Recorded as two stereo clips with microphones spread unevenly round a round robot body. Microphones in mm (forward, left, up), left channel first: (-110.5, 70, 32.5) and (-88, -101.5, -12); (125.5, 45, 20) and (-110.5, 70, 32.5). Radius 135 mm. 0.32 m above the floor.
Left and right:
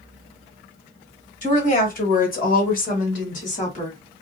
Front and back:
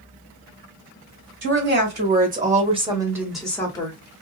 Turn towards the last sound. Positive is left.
turn(degrees=35)